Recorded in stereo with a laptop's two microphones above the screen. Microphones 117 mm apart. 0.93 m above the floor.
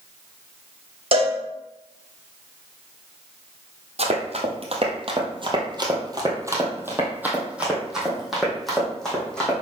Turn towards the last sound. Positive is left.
turn(degrees=5)  # may be behind; listen again after turning